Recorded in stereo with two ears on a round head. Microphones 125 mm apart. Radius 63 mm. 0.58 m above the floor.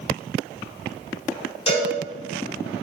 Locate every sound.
1.7 s a cowbell: 45° left (ahead or behind), 2.0 m